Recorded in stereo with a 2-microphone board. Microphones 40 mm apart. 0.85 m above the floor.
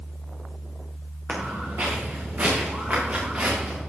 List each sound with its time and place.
1.3 s footsteps: 55° right (ahead or behind), 5 m; by 3.8 s 45° right (ahead or behind), 6.5 m